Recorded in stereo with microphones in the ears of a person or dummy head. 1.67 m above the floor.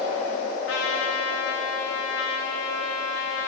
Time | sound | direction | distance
0.7 | a trumpet | 80° left | 4.5 m